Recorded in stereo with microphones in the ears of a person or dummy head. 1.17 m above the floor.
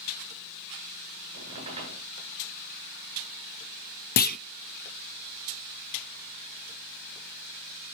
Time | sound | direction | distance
1.3 | a squeak | 40° right (ahead or behind) | 8.5 m
4.2 | a clunk | 55° left (ahead or behind) | 0.5 m